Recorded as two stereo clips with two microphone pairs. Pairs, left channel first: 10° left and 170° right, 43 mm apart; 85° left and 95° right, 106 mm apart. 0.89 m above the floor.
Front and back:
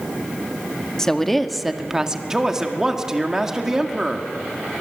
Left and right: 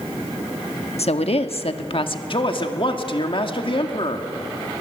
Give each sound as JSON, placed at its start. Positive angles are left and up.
{"t": 1.0, "sound": "a woman speaking", "azimuth_deg": 90, "distance_m": 1.3}
{"t": 2.3, "sound": "a man speaking", "azimuth_deg": 115, "distance_m": 2.0}